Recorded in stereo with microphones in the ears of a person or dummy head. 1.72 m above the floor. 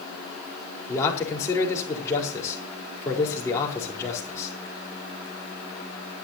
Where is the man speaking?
15° left (ahead or behind), 4.5 m.